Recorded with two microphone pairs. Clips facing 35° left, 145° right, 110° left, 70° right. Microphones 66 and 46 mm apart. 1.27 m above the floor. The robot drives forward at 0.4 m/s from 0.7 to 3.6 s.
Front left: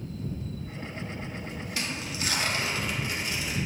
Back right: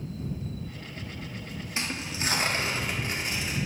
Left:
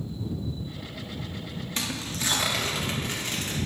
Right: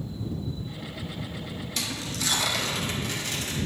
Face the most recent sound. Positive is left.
turn(degrees=170)